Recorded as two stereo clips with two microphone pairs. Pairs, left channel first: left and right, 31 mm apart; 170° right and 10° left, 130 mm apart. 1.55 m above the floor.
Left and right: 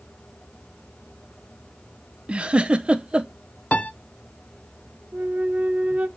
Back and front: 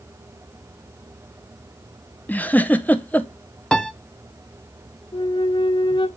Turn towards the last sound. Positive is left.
turn(degrees=-120)